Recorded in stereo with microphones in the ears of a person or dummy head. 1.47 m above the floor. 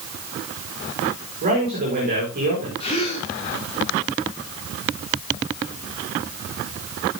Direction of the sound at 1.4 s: 45° right (ahead or behind).